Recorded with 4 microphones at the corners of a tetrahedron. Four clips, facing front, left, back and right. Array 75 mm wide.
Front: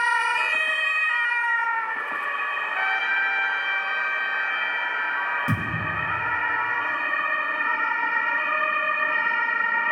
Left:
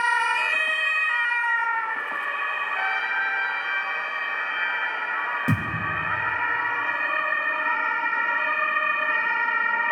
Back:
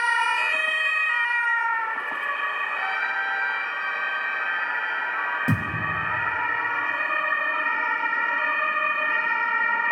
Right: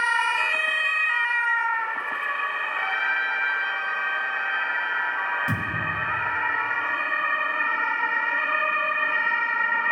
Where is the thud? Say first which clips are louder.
Left 1 dB, back 1 dB; 130° left, 4.5 m.